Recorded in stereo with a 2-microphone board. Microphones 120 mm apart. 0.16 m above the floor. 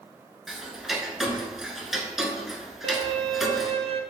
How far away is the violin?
About 0.5 m.